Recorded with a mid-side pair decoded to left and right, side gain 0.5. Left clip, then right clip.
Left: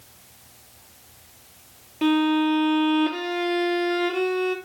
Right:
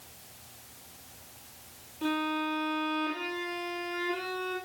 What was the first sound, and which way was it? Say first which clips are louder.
A violin: left 10 dB; 70° left.